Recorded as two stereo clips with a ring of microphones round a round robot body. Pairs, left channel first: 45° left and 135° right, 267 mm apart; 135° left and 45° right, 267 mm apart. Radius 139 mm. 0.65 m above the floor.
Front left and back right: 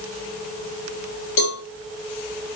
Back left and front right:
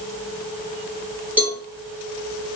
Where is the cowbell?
40° left, 4.5 m.